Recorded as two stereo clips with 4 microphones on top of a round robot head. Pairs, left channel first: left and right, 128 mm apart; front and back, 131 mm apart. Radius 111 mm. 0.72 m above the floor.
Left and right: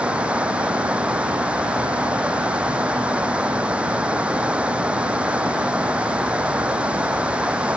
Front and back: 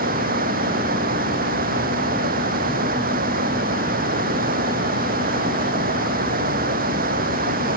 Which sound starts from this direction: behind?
Running water, at 0.0 s.